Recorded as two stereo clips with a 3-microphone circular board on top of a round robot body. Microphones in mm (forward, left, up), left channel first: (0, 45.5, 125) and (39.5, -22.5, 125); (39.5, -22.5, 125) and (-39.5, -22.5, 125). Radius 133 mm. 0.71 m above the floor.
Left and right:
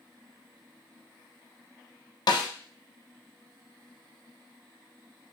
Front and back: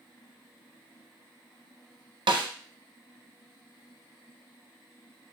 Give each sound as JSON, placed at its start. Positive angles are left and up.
{"t": 2.3, "sound": "a snare drum", "azimuth_deg": 155, "distance_m": 0.6}